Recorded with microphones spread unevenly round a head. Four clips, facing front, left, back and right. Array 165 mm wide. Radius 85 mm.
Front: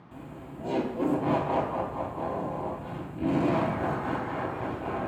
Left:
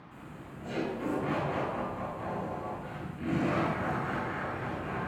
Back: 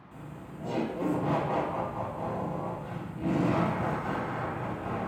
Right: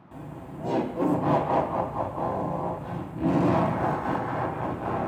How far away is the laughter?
About 1.1 m.